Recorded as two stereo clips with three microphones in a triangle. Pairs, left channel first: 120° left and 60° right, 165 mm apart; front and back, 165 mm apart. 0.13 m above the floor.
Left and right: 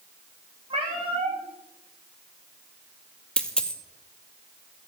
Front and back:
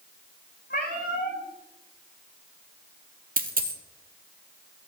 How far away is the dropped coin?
About 0.9 m.